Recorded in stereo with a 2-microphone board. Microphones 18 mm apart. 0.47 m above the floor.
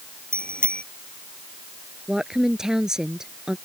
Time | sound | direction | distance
0.3 | a bicycle bell | 85° left | ?
2.1 | a woman speaking | 35° right (ahead or behind) | ?